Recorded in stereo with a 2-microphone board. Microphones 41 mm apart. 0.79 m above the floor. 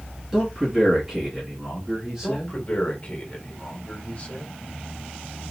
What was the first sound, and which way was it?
A man speaking, 15° right (ahead or behind).